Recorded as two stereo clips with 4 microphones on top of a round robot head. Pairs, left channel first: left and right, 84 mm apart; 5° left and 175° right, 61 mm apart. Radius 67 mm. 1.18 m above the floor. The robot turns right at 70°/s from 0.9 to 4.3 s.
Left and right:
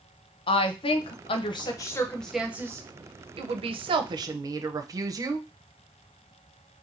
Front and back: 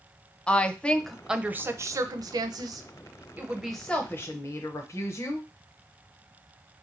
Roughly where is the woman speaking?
Left.